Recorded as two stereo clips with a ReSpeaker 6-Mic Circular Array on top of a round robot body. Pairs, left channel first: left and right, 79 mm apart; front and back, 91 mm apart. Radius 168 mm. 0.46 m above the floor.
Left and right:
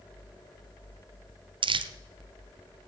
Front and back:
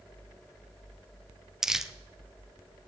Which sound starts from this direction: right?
Crumpling, at 1.6 s.